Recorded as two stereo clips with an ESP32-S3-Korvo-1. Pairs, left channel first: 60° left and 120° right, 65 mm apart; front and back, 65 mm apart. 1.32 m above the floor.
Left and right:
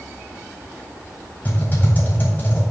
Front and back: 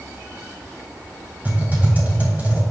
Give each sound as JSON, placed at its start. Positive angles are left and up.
{"t": 1.4, "sound": "typing on a keyboard", "azimuth_deg": 120, "distance_m": 3.0}